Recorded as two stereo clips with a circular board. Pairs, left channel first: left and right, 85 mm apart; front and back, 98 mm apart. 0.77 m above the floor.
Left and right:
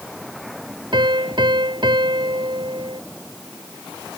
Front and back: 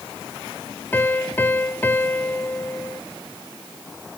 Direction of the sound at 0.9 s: 70° right.